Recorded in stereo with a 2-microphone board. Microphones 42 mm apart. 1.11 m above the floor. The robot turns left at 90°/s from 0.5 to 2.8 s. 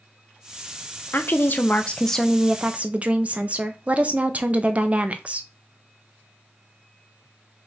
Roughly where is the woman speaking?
Left.